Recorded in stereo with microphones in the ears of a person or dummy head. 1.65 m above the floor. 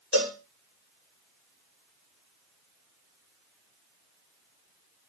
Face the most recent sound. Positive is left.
turn(degrees=75)  # may be behind; listen again after turning